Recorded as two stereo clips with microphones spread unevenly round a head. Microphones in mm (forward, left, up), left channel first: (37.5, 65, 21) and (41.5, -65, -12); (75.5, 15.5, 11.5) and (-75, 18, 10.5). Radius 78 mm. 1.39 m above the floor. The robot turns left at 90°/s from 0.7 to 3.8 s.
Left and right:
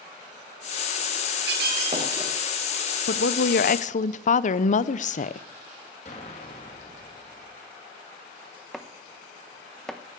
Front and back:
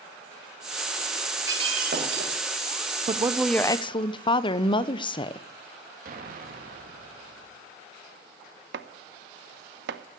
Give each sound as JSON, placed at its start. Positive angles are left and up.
{"t": 1.5, "sound": "breaking glass", "azimuth_deg": -110, "distance_m": 2.5}
{"t": 3.1, "sound": "a woman speaking", "azimuth_deg": 125, "distance_m": 0.7}
{"t": 6.0, "sound": "an explosion", "azimuth_deg": 145, "distance_m": 2.5}
{"t": 8.7, "sound": "chopping", "azimuth_deg": 175, "distance_m": 0.7}